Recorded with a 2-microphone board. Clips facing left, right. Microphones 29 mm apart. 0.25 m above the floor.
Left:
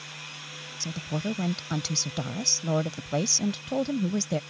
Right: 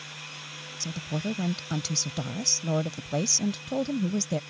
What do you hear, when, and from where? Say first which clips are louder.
0.8 s a woman speaking: left 1 dB; 15° left (ahead or behind)